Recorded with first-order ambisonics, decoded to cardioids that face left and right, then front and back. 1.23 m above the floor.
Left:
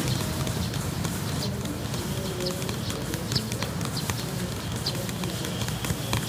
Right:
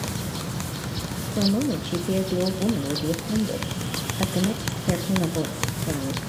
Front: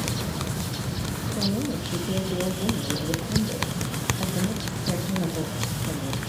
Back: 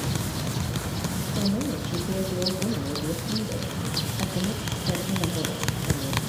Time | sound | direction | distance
1.4 | a woman speaking | 90° right | 1.9 m